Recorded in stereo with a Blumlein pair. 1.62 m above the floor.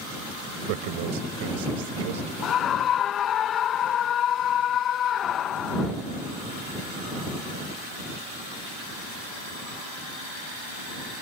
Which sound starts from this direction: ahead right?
A man speaking, at 0.7 s.